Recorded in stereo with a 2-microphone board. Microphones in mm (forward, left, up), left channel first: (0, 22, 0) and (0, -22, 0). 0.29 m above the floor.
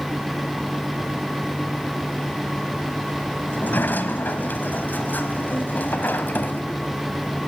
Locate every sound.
3.5 s a sliding door: 45° left (ahead or behind), 1.5 m